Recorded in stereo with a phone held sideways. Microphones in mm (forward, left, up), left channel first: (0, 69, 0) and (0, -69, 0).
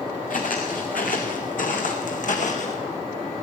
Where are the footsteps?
70° left (ahead or behind), 4.5 m; by 2.8 s 55° left (ahead or behind), 3 m.